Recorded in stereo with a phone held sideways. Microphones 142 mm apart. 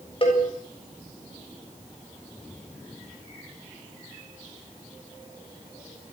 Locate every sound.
0.2 s a cowbell: 40° left (ahead or behind), 7.5 m